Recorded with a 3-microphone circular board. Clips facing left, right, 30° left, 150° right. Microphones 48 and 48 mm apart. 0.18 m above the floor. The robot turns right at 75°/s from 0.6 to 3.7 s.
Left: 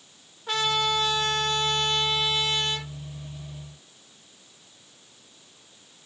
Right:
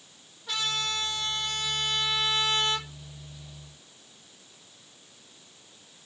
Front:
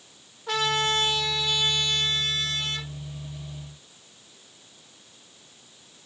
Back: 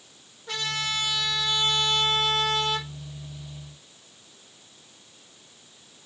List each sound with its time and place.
0.5 s a trumpet: 30° left, 4.5 m; by 2.9 s 160° right, 4.5 m